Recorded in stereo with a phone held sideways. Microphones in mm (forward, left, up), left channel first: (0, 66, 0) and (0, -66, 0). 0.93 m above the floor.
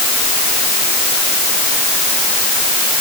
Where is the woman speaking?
I don't hear a woman speaking.